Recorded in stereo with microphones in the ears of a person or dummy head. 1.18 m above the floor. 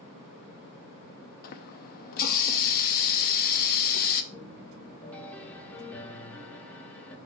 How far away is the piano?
About 1.2 m.